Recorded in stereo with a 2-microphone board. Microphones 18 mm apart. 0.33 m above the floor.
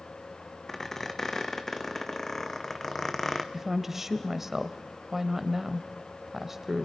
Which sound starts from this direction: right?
A woman speaking, at 3.5 s.